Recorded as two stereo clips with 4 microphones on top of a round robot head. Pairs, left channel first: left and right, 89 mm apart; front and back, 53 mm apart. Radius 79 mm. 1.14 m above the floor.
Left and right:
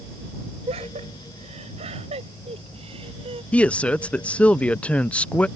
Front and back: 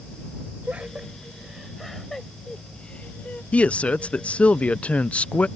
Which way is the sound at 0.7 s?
105° right.